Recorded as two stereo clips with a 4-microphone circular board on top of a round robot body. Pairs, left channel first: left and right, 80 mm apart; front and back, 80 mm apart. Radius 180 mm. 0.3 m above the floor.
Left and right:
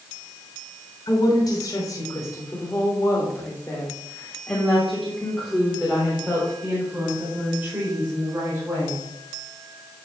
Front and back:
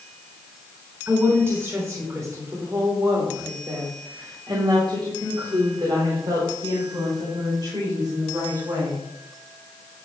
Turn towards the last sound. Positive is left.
turn(degrees=-145)